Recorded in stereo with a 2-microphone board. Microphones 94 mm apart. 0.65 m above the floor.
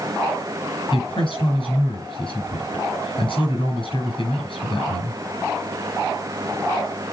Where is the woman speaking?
65° left (ahead or behind), 7 m.